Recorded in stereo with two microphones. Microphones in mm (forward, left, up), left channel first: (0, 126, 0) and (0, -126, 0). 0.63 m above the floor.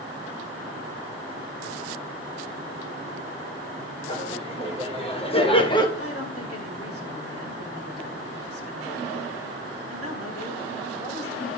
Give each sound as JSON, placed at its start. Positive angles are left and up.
{"t": 4.1, "sound": "laughter", "side_deg": 25, "distance_m": 1.8}
{"t": 6.0, "sound": "a woman speaking", "side_deg": 65, "distance_m": 2.5}